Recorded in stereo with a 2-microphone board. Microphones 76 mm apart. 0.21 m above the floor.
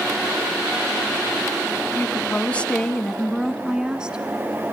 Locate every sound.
1.9 s a woman speaking: 30° left (ahead or behind), 1.7 m; by 4.2 s 15° right (ahead or behind), 2.5 m